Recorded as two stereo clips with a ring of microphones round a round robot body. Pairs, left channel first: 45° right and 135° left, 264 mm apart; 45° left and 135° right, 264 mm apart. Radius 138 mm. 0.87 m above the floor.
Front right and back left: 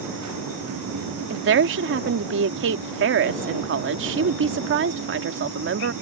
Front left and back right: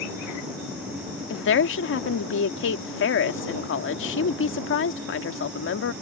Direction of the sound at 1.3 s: 90° left.